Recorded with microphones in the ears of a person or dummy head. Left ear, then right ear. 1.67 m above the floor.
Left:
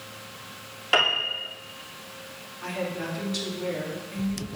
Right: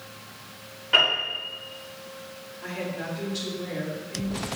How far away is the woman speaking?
About 4 m.